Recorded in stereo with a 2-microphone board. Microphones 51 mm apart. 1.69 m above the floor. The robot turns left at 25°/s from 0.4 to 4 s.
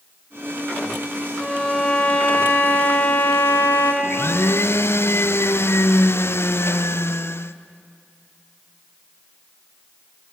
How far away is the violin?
About 2.5 m.